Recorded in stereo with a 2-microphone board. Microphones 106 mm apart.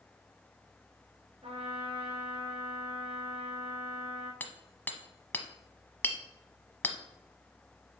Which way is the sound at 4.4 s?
15° left (ahead or behind).